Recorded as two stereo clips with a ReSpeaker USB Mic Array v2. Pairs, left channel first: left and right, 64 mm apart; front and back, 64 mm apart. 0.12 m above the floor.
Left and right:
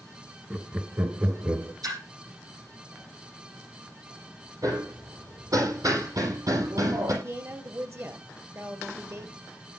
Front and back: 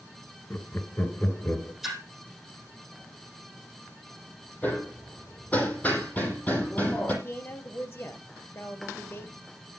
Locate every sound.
0.5 s laughter: 30° right, 1.9 m; by 1.7 s 50° right, 2.5 m
1.8 s a splash: 95° right, 5.5 m
4.6 s hammering: 65° right, 4 m
7.2 s a woman speaking: 50° right, 3 m